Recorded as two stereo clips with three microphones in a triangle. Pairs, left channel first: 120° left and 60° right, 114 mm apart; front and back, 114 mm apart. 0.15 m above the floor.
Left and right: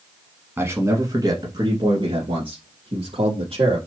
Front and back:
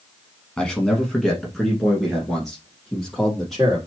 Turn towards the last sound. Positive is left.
turn(degrees=-90)